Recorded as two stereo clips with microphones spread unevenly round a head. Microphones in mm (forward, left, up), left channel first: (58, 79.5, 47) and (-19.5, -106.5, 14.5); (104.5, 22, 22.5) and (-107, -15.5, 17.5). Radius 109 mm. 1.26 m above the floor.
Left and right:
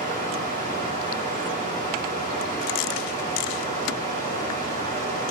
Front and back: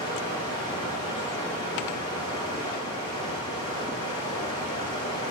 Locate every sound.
0.0 s running water: 60° right, 6 m